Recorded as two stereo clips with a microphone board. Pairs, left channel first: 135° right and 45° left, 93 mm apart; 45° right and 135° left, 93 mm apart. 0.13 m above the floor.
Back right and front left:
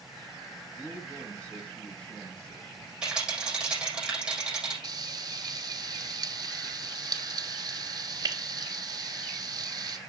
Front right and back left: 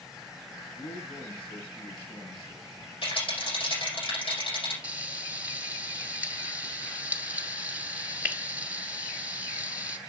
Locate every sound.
0.8 s a man speaking: 60° right, 5 m
3.0 s a rattle: 35° right, 6 m
4.8 s frying: 65° left, 1.2 m